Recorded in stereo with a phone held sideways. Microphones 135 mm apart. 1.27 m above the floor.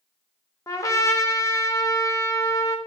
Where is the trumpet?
25° left (ahead or behind), 0.6 m.